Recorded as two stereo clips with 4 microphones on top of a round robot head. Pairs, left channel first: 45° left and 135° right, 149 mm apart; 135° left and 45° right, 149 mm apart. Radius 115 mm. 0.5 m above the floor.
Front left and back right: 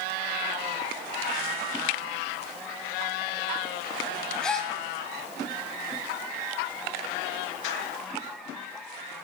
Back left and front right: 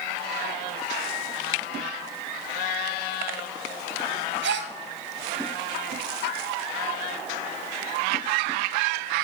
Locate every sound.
4.4 s a gasp: 40° right, 1.0 m